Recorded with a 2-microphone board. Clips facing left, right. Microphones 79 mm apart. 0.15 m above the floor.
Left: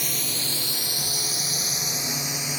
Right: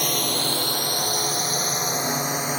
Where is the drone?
60° right (ahead or behind); by 2.6 s 45° right (ahead or behind).